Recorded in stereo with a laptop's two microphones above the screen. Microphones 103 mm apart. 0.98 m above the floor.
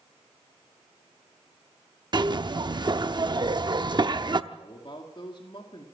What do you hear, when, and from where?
2.1 s a zipper: 45° right (ahead or behind), 0.7 m
4.5 s a man speaking: 50° left (ahead or behind), 2 m